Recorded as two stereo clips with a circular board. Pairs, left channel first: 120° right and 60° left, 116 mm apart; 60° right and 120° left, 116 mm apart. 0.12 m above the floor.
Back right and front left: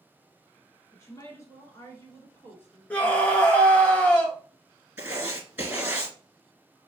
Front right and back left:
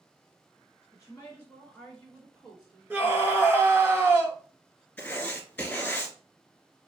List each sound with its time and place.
0.9 s a woman speaking: 90° right, 1.7 m; by 3.5 s 170° left, 1.7 m
2.9 s a scream: 175° left, 1.2 m
5.0 s writing: 5° left, 1.7 m